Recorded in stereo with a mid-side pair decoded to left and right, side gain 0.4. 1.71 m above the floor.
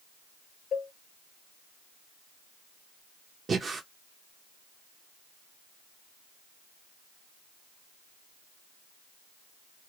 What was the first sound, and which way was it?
A cowbell, 50° left.